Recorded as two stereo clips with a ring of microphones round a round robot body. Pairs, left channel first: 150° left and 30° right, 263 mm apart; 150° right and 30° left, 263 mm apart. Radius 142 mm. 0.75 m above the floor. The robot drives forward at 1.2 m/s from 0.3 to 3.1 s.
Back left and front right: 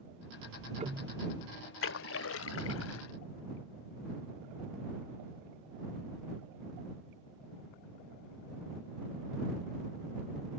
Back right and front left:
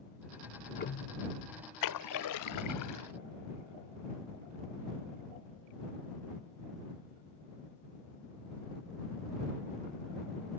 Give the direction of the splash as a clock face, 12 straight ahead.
5 o'clock.